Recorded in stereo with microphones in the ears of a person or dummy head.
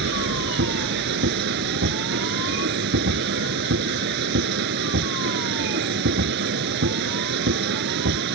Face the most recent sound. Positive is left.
turn(degrees=-60)  # may be behind; listen again after turning